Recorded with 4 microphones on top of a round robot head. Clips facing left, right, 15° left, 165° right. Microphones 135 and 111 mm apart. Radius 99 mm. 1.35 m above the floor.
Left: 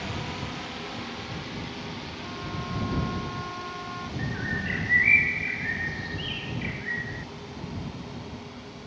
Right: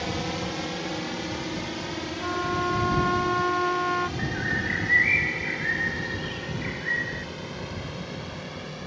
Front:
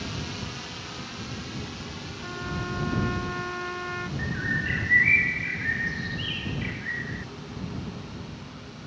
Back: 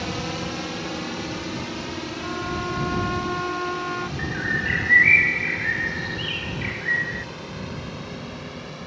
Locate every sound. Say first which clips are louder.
0.0 s a drone: right 5 dB, back 7 dB; 135° right; by 8.9 s 125° right
2.2 s a trumpet: right 11 dB, back 4 dB; 100° right
4.2 s a bird: right 3 dB, back 3 dB; 165° left